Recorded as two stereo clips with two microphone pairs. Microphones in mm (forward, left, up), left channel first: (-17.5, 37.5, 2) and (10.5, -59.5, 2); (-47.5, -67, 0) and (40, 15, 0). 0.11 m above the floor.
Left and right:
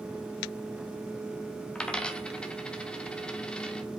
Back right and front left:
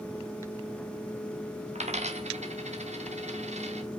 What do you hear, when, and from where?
1.8 s a dropped coin: 25° left, 1.8 m